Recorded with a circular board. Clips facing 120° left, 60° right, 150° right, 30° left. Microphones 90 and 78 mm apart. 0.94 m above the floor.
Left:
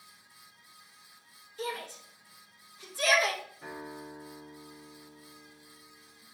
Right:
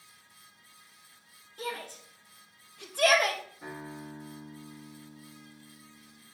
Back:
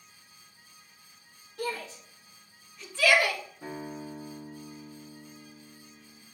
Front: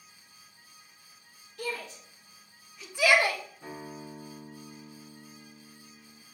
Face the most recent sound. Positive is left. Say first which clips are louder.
# even, back 3 dB
turn(degrees=-135)